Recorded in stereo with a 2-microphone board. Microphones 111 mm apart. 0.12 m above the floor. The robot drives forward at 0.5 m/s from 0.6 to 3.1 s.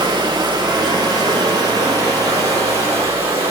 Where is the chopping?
I don't hear chopping.